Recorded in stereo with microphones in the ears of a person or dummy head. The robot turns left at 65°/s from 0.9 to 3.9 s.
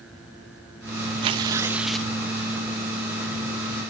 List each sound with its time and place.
1.2 s tearing paper: 130° right, 1.0 m; by 2.1 s 170° left, 1.0 m